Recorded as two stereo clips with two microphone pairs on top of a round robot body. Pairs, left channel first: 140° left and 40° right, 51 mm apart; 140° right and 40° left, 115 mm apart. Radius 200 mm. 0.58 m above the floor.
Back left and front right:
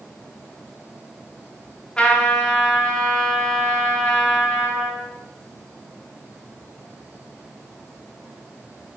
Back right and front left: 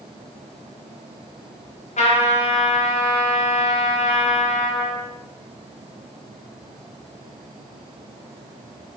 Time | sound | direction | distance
2.0 | a trumpet | 145° right | 6 m